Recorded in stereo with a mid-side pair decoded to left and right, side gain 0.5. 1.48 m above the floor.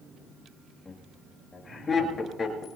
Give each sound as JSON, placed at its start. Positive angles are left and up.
{"t": 0.8, "sound": "laughter", "azimuth_deg": 20, "distance_m": 8.0}